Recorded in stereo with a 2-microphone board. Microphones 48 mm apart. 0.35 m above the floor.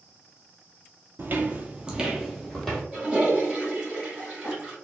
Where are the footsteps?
50° right (ahead or behind), 0.6 m; by 2.8 s 5° left (ahead or behind), 1.0 m.